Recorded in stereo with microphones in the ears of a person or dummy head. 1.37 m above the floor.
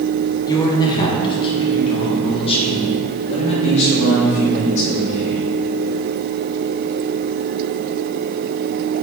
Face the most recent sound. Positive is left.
turn(degrees=45)  # may be behind; listen again after turning